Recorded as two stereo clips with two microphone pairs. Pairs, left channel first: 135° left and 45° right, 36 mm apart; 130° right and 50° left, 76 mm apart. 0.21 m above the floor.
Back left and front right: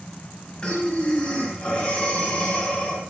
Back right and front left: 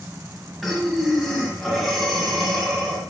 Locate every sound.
0.6 s breathing: 135° left, 1.7 m